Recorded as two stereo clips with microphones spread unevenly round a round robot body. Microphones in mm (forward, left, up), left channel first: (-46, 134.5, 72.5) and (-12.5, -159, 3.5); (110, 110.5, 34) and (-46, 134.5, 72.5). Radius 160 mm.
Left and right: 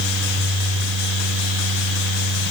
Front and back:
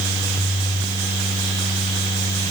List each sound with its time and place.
Only background noise.